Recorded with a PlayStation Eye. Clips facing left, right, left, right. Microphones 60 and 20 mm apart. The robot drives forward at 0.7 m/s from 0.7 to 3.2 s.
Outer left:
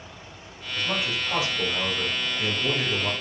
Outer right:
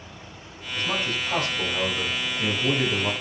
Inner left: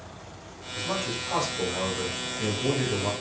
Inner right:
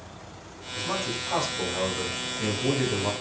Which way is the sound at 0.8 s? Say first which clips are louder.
Outer right 1 dB, even; 5° left (ahead or behind).